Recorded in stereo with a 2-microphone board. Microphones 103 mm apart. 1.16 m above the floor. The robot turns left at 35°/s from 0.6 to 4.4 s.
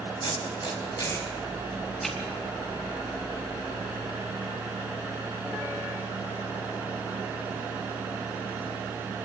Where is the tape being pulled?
55° left (ahead or behind), 4 m; by 2.2 s centre (ahead or behind), 4 m.